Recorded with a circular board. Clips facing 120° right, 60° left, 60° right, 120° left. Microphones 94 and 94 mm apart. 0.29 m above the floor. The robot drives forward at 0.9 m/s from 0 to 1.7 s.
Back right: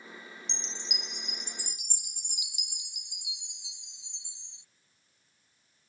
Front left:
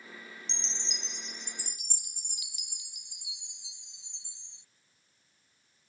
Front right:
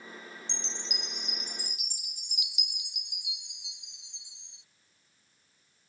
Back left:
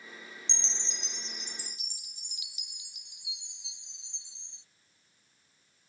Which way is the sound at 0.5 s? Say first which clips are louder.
Back right 1 dB, front right 2 dB; 145° left.